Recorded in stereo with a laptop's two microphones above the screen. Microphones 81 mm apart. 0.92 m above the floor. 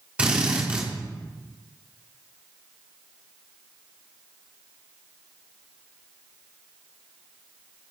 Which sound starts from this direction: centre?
A drill, at 0.2 s.